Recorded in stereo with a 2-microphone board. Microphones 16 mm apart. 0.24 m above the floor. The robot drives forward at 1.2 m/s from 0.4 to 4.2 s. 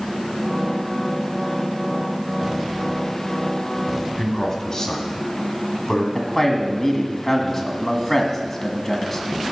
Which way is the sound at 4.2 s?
30° left (ahead or behind).